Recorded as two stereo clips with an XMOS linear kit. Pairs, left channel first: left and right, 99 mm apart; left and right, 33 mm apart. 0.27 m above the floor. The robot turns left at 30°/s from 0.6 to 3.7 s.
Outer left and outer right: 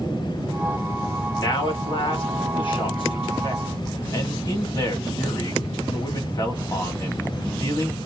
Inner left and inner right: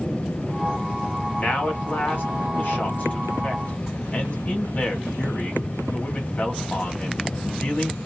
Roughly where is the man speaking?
Behind left.